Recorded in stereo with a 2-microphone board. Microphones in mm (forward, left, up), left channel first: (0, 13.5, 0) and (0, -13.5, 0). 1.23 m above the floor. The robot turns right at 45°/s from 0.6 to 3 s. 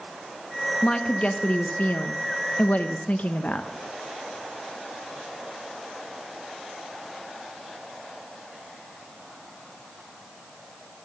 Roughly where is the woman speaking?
Ahead left.